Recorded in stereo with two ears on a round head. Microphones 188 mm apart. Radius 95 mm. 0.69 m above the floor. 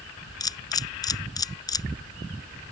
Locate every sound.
0.4 s a camera shutter: 20° left (ahead or behind)